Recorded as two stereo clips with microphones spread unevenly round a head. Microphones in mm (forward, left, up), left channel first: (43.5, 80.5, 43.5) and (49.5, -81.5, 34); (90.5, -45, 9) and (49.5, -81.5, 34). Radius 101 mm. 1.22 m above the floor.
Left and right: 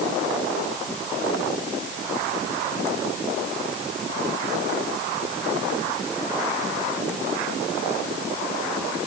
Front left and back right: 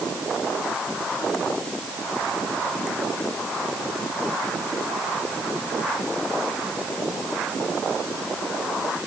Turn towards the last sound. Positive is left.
No sound to turn to.